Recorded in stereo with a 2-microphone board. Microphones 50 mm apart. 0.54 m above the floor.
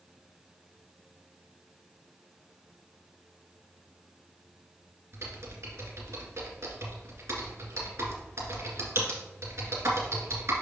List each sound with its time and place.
5.1 s typing on a keyboard: 60° right (ahead or behind), 2 m